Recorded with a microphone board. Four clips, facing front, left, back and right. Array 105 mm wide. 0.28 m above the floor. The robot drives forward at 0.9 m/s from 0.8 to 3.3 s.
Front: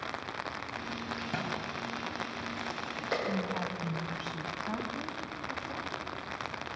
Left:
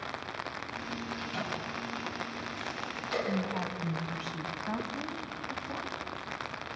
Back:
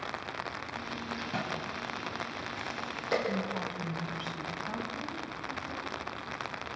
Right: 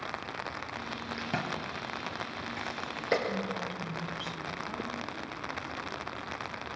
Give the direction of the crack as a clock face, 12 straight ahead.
2 o'clock.